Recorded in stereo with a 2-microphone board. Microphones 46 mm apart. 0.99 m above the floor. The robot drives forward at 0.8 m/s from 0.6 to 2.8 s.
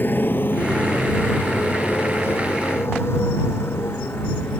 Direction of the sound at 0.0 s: 45° left (ahead or behind).